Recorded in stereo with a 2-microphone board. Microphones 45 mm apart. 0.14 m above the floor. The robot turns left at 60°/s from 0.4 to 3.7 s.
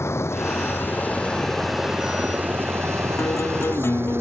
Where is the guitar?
90° left; by 4.2 s 60° left.